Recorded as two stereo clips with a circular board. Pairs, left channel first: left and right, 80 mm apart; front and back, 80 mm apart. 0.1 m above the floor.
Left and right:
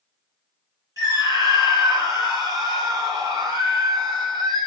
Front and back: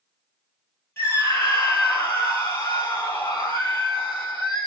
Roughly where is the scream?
Ahead right.